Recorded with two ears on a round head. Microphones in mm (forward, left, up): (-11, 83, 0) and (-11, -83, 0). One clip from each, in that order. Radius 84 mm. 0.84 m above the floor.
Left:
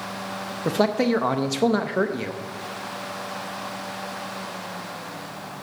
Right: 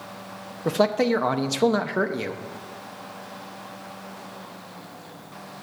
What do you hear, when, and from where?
0.7 s a man speaking: 5° right (ahead or behind), 0.6 m